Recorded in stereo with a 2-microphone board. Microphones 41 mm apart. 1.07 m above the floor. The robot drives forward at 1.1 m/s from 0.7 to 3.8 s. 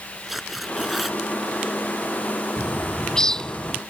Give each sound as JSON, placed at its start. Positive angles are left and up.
{"t": 0.3, "sound": "tearing paper", "side_deg": -5}
{"t": 2.6, "sound": "a bird", "side_deg": 10}